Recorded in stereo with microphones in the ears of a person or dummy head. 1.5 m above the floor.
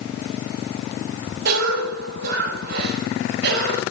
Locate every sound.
1.4 s a cough: 65° right (ahead or behind), 8.5 m